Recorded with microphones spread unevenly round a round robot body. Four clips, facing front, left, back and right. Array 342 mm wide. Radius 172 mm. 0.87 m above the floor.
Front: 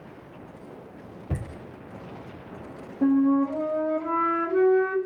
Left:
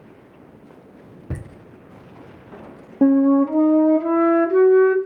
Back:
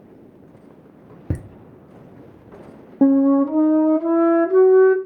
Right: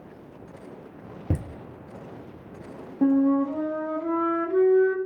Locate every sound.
1.3 s laughter: 155° right, 1.2 m
3.0 s a flute: 150° left, 0.8 m